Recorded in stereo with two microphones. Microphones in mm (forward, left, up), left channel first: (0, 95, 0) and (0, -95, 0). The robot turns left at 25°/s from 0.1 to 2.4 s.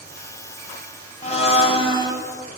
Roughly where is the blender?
Left.